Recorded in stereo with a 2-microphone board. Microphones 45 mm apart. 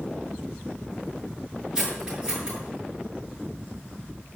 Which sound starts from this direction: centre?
Cutlery clinking, at 1.8 s.